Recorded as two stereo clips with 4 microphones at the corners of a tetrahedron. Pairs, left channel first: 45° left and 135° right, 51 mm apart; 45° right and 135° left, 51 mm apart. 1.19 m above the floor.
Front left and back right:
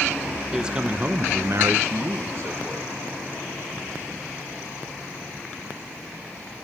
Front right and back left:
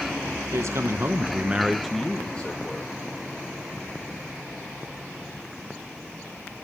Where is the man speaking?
150° left, 1.5 m; by 3.0 s 100° right, 2 m.